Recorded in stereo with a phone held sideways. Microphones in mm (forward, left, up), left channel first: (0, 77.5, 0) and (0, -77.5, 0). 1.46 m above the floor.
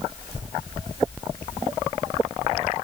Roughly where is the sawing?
I don't hear sawing.